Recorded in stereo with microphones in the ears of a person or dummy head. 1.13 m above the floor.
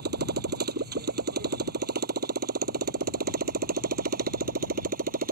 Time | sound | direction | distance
0.0 | a motorcycle | 55° right (ahead or behind) | ?